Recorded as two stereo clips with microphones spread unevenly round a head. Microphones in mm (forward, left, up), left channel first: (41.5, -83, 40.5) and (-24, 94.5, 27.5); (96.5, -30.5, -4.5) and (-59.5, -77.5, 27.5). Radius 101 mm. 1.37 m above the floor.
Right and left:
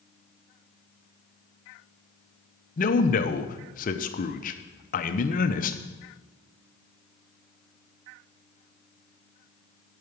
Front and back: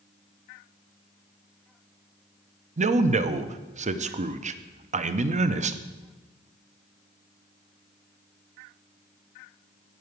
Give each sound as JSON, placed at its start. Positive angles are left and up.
{"t": 2.8, "sound": "a man speaking", "azimuth_deg": -120, "distance_m": 0.7}